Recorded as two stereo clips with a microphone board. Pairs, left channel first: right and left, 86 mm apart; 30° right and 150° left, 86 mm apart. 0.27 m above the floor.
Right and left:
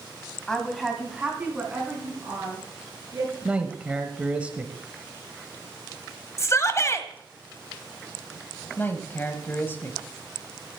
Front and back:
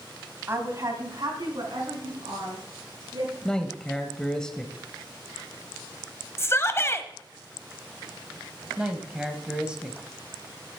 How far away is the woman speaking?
About 1.9 m.